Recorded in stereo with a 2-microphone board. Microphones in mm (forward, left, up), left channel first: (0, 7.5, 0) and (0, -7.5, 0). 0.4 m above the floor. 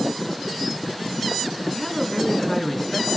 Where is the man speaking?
5° left (ahead or behind), 5 m.